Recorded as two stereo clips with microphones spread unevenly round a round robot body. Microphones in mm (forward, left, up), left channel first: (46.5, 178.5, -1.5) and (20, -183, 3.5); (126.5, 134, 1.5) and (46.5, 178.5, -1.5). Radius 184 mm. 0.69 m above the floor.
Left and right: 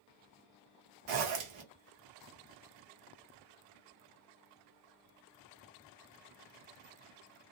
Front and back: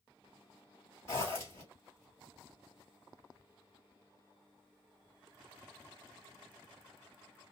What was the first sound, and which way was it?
A zipper, 90° right.